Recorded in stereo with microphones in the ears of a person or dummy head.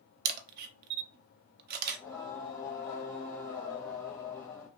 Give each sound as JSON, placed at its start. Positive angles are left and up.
{"t": 0.2, "sound": "a camera shutter", "side_deg": -55, "distance_m": 0.7}
{"t": 1.9, "sound": "singing", "side_deg": 10, "distance_m": 1.1}